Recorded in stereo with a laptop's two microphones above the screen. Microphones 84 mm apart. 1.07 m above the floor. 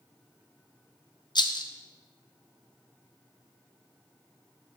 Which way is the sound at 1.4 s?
60° left (ahead or behind).